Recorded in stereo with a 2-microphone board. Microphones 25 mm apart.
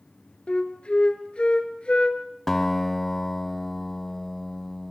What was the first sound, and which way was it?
A flute, 45° left (ahead or behind).